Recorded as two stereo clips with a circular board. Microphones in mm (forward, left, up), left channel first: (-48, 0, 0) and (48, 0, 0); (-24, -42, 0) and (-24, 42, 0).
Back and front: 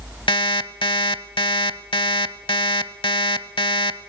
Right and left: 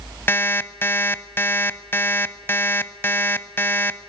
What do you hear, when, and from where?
0.3 s an alarm clock: 150° right, 0.7 m